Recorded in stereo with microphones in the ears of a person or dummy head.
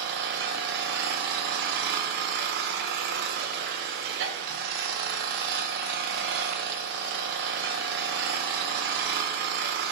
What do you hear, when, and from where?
0.0 s an engine running: 60° right (ahead or behind), 1.1 m